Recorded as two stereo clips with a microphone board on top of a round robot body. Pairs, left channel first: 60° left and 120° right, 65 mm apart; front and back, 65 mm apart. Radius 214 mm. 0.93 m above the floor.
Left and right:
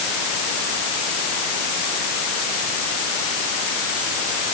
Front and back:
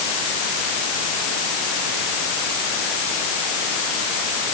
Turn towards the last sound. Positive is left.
No sound to turn to.